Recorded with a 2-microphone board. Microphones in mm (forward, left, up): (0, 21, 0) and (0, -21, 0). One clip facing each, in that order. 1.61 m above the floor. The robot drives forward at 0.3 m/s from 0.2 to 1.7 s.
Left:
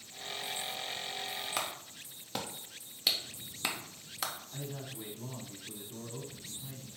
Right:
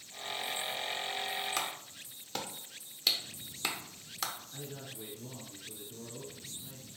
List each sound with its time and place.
1.6 s a clap: 5° left (ahead or behind), 0.6 m
4.5 s a man speaking: 70° left (ahead or behind), 1.2 m